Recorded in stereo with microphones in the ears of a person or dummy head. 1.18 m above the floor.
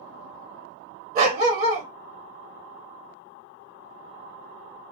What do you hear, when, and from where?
1.1 s a dog barking: 55° right (ahead or behind), 1.2 m